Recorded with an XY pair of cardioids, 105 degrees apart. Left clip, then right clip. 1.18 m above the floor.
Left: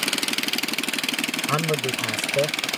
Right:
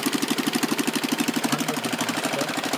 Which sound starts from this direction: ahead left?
A man speaking, at 1.5 s.